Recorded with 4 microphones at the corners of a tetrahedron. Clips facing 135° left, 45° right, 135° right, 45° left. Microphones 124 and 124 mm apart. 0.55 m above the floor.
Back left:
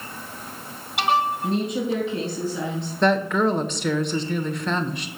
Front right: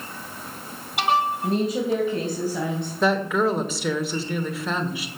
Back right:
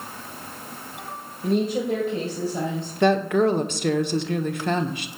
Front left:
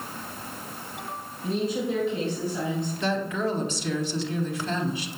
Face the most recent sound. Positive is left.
turn(degrees=-130)